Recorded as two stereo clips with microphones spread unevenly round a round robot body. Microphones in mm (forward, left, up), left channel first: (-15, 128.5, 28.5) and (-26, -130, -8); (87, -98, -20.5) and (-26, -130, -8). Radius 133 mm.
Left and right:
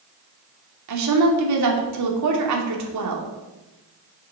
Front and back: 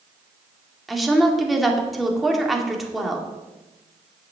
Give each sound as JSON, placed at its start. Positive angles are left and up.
{"t": 0.9, "sound": "a woman speaking", "azimuth_deg": -75, "distance_m": 2.5}